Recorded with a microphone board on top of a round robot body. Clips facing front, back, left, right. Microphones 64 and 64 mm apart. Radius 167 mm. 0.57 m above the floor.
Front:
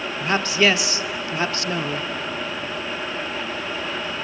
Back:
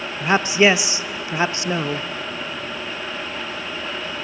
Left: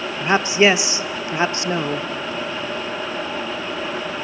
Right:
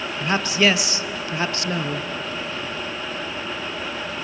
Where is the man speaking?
130° left, 0.7 m.